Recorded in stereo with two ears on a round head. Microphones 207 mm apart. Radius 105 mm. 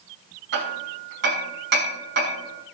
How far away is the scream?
No scream in this recording.